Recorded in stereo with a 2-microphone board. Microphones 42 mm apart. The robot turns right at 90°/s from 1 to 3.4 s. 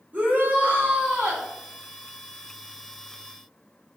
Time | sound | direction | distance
0.1 | a shout | 135° right | 1.4 m